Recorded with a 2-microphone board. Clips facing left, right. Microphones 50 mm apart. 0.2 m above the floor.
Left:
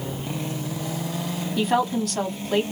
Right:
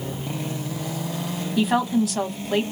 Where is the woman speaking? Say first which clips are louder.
Right 2 dB; 5° right (ahead or behind), 1.0 m.